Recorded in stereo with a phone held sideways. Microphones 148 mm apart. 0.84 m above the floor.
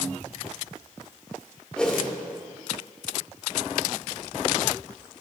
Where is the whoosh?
5° left (ahead or behind), 1.7 m.